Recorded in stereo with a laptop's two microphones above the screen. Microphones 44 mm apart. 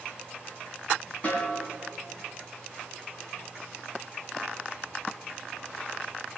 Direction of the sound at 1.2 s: 30° left (ahead or behind).